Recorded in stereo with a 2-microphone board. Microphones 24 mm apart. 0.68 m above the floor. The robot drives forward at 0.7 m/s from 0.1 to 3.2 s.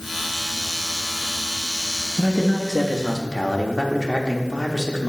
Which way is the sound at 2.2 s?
25° left (ahead or behind).